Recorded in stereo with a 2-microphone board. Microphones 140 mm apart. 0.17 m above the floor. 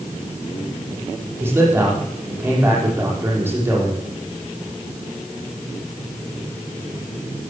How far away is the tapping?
No tapping in this recording.